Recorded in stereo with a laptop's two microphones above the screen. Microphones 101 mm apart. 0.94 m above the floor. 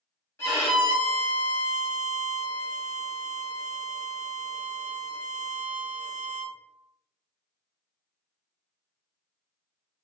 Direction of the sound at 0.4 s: 25° left (ahead or behind).